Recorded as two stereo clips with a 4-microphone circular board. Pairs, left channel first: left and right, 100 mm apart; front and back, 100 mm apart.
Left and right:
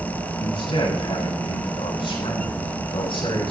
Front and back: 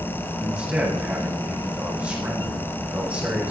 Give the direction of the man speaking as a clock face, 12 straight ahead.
8 o'clock.